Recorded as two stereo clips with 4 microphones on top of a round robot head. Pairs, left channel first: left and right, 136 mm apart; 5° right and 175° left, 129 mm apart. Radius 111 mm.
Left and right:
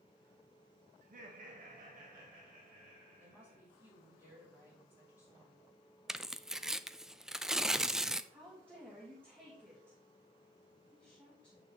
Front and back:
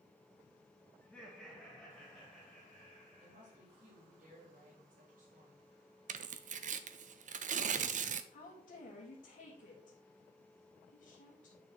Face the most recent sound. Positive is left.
turn(degrees=-15)